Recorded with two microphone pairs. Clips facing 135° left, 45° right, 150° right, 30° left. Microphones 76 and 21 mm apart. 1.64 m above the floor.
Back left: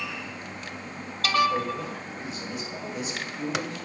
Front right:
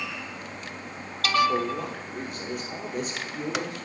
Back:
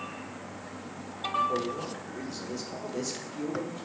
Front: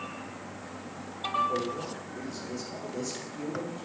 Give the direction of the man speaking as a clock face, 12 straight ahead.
3 o'clock.